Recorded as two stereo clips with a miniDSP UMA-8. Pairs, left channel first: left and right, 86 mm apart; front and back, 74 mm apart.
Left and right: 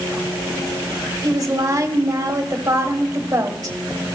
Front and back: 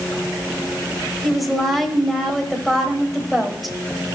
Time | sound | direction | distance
1.2 | a woman speaking | 90° right | 1.1 m